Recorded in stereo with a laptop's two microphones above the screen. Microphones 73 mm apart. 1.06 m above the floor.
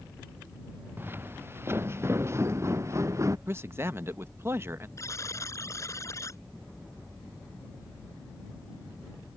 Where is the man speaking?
30° right (ahead or behind).